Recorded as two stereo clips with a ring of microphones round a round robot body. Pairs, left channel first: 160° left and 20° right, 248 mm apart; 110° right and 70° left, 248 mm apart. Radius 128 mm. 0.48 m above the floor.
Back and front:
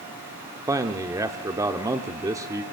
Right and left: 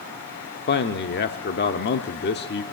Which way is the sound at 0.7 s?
95° right.